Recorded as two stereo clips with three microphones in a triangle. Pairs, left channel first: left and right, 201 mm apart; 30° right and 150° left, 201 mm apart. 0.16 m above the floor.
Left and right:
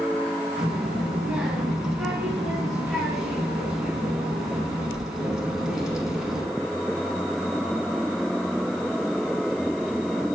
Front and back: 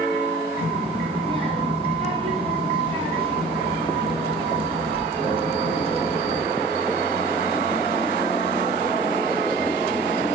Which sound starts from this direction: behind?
A child speaking, at 0.6 s.